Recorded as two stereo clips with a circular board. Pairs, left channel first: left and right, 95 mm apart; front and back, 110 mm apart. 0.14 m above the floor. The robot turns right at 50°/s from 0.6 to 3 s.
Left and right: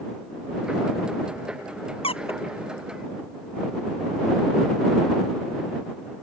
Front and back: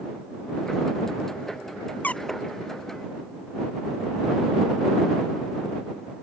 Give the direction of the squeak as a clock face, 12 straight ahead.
10 o'clock.